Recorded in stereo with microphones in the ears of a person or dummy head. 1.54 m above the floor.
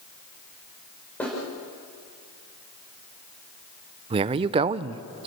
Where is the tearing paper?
I don't hear tearing paper.